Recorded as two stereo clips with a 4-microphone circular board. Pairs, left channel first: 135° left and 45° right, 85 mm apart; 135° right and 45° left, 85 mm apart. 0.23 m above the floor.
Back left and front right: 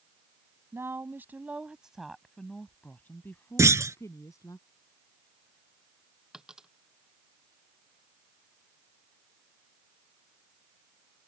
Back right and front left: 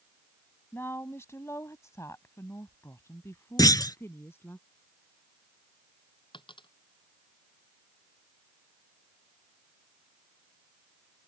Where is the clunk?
95° right.